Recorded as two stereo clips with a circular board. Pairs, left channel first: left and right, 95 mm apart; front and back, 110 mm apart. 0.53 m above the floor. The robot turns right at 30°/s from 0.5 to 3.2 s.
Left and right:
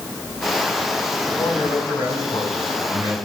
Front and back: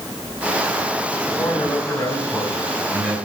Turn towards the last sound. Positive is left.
turn(degrees=100)